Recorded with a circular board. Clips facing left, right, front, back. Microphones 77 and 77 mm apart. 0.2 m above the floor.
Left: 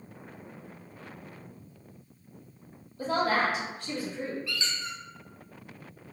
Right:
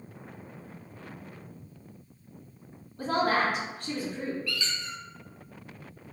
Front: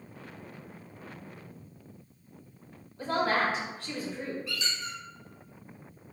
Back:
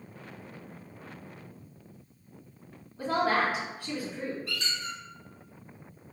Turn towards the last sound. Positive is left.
turn(degrees=155)